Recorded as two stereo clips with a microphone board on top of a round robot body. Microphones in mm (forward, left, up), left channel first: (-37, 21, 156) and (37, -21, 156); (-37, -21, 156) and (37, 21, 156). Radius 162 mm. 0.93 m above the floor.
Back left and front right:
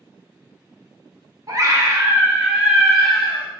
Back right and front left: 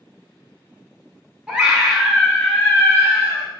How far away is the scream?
About 1.1 m.